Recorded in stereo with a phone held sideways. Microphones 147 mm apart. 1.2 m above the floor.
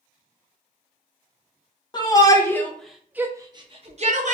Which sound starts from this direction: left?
A shout, at 1.9 s.